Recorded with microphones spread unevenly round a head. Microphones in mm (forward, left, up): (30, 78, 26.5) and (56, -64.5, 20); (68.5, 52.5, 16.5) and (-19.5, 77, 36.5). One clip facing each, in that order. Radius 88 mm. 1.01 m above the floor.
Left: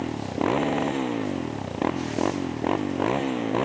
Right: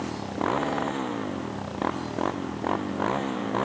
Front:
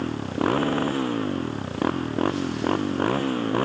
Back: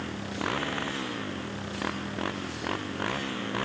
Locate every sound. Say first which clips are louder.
0.0 s a motorcycle: left 3 dB, front 8 dB; 30° left